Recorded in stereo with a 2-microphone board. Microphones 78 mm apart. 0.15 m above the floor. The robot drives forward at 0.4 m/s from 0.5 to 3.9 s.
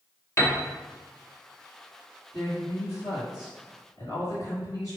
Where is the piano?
35° left (ahead or behind), 1.1 m.